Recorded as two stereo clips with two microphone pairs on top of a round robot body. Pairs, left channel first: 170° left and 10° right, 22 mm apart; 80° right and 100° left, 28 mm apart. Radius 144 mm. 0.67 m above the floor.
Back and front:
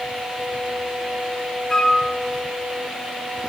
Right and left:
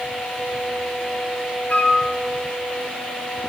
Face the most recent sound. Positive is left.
turn(degrees=-120)